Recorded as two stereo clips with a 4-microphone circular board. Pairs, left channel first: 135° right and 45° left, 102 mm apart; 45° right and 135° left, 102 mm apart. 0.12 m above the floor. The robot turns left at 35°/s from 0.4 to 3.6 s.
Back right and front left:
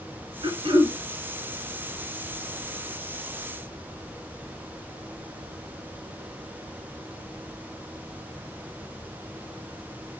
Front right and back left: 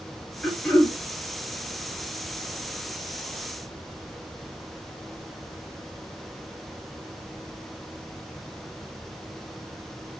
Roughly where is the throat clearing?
Ahead left.